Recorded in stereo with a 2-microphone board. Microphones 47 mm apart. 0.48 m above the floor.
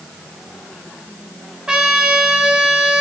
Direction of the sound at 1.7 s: 20° right (ahead or behind).